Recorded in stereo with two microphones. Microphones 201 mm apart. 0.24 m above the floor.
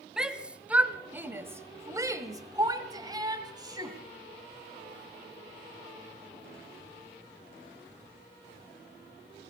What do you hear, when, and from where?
0.2 s a shout: 5° right (ahead or behind), 1.6 m; by 4.0 s 20° right (ahead or behind), 1.8 m